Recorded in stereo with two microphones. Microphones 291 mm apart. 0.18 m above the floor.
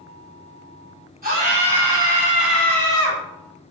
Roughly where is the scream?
Right.